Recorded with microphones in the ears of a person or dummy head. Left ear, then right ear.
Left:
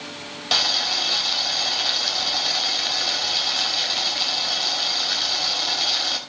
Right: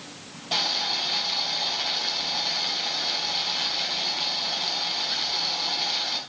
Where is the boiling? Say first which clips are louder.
Left 5 dB; 70° left (ahead or behind), 3 m.